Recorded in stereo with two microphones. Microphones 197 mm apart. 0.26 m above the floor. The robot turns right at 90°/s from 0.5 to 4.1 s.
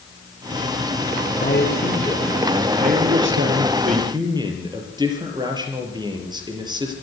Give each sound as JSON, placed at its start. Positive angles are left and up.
{"t": 1.4, "sound": "a man speaking", "azimuth_deg": 95, "distance_m": 5.5}